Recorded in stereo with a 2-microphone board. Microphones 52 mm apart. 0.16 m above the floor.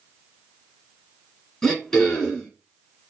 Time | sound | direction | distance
1.6 | throat clearing | 15° left (ahead or behind) | 1.8 m